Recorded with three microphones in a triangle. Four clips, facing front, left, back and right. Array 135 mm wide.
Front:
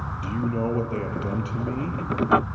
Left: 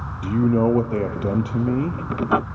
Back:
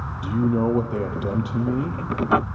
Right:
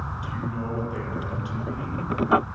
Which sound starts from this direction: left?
A man speaking, at 0.2 s.